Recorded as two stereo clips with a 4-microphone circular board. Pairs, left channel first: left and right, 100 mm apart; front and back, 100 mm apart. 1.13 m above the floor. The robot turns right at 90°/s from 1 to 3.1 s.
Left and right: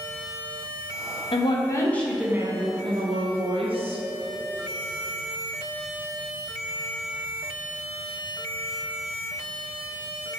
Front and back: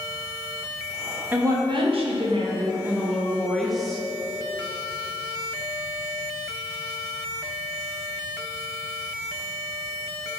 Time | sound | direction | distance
1.3 | a woman speaking | 110° left | 0.5 m